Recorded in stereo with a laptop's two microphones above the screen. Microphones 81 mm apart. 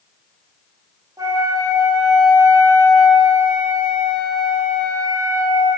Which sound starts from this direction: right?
A flute, at 1.2 s.